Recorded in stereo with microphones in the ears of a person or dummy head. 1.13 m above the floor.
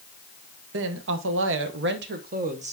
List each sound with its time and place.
0.7 s a woman speaking: 60° right (ahead or behind), 1.1 m; by 2.7 s 30° right (ahead or behind), 1.0 m